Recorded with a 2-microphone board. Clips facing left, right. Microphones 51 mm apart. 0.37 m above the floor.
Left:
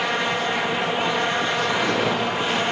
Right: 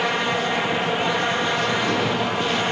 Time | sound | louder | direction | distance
1.7 | footsteps | even | 15° left (ahead or behind) | 4 m